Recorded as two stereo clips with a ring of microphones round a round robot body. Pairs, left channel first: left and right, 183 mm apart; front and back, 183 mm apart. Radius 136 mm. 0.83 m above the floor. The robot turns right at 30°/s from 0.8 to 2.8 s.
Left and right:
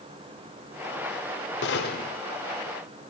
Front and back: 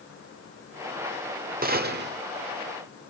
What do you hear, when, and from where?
1.6 s a gunshot: 140° left, 1.4 m; by 2.2 s 155° left, 1.4 m